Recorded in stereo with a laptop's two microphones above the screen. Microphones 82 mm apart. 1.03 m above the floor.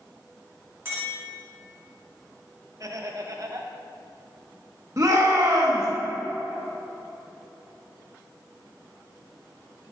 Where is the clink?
30° right (ahead or behind), 1.4 m.